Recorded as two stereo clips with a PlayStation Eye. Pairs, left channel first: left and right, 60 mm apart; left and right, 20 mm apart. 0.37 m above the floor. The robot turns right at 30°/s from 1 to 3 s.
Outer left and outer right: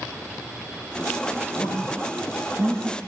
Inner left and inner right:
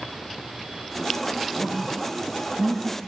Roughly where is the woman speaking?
Right.